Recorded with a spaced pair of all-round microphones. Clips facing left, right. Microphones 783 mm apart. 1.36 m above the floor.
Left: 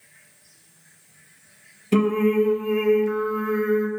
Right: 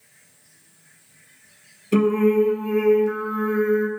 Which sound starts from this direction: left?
Singing, at 1.9 s.